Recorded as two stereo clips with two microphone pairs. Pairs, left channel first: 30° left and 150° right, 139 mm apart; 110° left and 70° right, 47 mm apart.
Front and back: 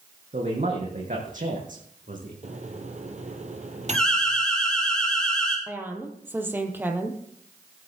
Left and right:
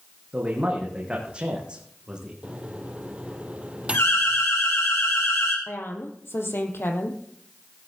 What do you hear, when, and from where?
0.3 s a man speaking: 130° right, 4.5 m; by 2.3 s 145° right, 5.5 m
2.4 s a microwave: 130° right, 2 m
3.9 s an alarm: 110° left, 7 m
5.7 s a woman speaking: 135° left, 3.5 m